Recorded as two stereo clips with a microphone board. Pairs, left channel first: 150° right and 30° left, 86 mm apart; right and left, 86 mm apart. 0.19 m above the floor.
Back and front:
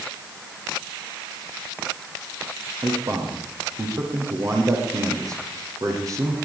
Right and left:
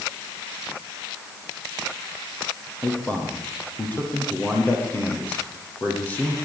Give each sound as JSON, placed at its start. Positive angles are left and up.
{"t": 2.8, "sound": "a man speaking", "azimuth_deg": -20, "distance_m": 7.5}